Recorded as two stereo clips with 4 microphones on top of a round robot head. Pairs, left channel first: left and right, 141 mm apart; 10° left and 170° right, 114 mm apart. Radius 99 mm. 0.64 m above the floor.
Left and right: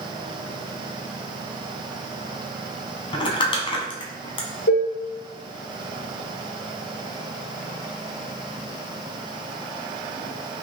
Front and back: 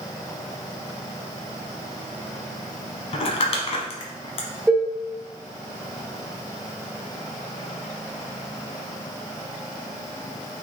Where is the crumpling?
40° left, 1.0 m.